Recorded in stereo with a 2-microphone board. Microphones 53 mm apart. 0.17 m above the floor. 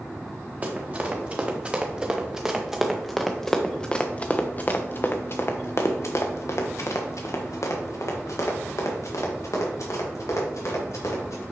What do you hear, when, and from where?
0.6 s running footsteps: 30° right (ahead or behind), 2 m; by 11.4 s 75° left (ahead or behind), 4 m